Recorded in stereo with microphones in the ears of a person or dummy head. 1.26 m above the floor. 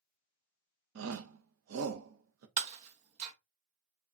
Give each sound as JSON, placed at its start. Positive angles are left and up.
{"t": 0.9, "sound": "a shout", "side_deg": -80, "distance_m": 0.8}
{"t": 2.6, "sound": "breaking glass", "side_deg": -35, "distance_m": 0.8}